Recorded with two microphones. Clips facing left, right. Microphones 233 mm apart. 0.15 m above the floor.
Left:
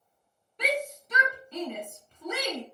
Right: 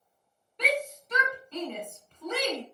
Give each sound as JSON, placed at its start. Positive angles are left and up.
{"t": 0.6, "sound": "a shout", "side_deg": 5, "distance_m": 1.2}